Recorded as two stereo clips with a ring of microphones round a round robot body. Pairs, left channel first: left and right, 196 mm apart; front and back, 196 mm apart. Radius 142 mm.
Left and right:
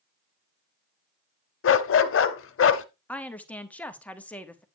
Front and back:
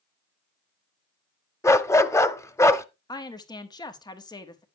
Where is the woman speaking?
20° left, 1.1 m.